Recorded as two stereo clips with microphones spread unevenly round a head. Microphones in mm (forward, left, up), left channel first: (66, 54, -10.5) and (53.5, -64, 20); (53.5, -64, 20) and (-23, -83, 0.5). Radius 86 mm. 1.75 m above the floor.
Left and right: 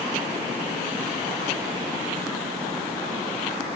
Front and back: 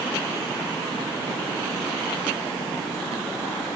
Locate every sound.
Only background noise.